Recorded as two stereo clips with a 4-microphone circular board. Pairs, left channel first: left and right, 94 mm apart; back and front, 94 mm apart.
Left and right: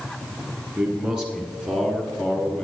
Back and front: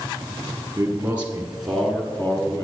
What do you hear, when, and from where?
0.8 s a man speaking: 25° right, 1.8 m; by 2.6 s 170° left, 1.8 m